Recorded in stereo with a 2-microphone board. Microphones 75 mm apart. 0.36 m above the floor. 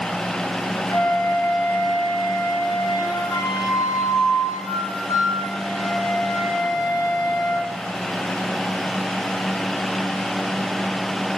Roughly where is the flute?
Left.